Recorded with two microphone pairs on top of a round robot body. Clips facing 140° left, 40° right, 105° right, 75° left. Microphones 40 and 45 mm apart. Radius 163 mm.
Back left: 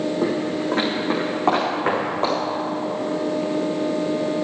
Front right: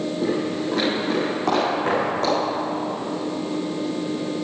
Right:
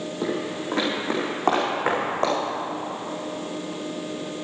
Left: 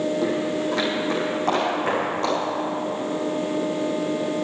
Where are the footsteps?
Straight behind, 3 m; by 2.4 s 150° right, 5 m.